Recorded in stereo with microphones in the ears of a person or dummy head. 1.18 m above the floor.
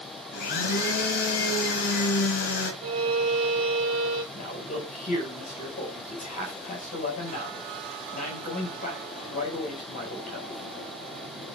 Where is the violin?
60° right (ahead or behind), 2.5 m.